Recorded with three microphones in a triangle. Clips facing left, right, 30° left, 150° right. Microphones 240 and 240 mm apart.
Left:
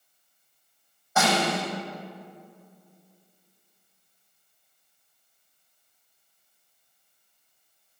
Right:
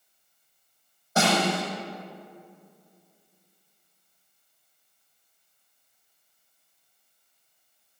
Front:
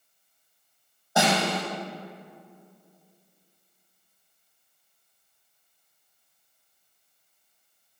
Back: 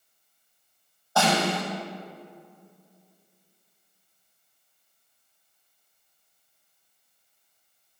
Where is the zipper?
No zipper in this recording.